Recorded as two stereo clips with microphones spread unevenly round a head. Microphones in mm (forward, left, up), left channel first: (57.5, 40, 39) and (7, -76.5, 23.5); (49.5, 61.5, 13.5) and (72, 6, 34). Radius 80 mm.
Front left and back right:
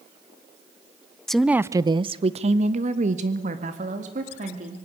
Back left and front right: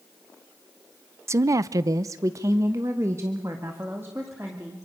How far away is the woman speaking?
About 0.7 m.